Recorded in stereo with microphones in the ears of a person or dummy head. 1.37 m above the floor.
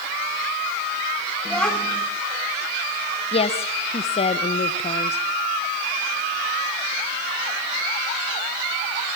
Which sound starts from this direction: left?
A woman speaking, at 3.3 s.